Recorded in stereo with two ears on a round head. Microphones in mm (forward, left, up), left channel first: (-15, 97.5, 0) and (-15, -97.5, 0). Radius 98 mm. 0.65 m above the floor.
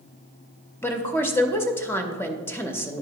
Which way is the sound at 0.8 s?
10° left (ahead or behind).